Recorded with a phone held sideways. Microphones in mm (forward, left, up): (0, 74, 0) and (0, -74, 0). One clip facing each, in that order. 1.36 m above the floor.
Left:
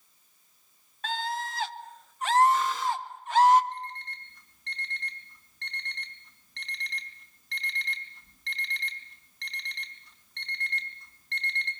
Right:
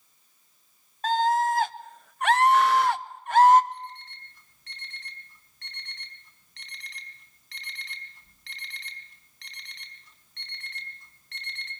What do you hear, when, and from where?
1.0 s a scream: 40° right (ahead or behind), 1.6 m; by 3.6 s 50° right (ahead or behind), 1.1 m
3.7 s an alarm clock: centre (ahead or behind), 4 m